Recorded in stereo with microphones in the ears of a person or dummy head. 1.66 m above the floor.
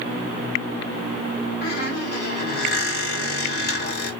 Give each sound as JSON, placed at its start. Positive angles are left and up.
{"t": 1.6, "sound": "a squeak", "side_deg": 65, "distance_m": 1.3}